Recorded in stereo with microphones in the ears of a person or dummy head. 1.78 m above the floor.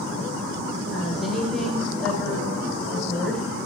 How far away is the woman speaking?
About 8.5 m.